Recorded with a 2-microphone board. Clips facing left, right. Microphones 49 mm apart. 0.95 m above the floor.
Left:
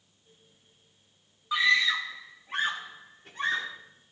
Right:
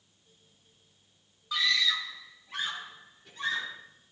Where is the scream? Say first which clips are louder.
Left 5 dB; 20° left (ahead or behind), 0.7 m; by 3.7 s 45° left (ahead or behind), 2.5 m.